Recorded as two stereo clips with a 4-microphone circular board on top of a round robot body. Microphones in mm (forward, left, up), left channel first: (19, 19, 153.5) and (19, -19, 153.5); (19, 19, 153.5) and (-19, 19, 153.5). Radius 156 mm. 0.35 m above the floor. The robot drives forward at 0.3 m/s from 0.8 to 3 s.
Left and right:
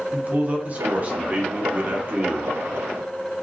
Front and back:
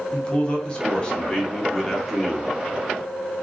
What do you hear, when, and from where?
0.1 s a man speaking: 55° right, 1.1 m; by 2.5 s 95° right, 1.0 m